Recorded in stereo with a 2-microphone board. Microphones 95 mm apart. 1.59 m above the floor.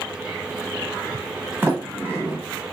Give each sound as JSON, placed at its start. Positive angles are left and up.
{"t": 1.6, "sound": "a sliding door", "side_deg": -20, "distance_m": 1.0}